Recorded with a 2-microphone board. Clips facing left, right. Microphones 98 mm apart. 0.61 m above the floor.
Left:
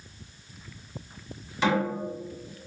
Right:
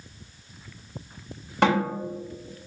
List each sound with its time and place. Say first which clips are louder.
1.6 s a snare drum: right 3 dB; 60° right (ahead or behind), 1.3 m